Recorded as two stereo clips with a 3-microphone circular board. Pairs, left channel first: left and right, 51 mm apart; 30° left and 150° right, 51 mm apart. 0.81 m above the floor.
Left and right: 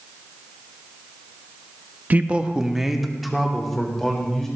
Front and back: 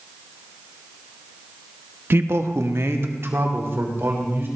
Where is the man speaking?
135° right, 0.8 m; by 4.5 s 175° left, 3.5 m.